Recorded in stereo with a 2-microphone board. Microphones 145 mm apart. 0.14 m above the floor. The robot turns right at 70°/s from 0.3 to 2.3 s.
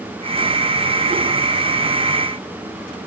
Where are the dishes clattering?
No dishes clattering in this recording.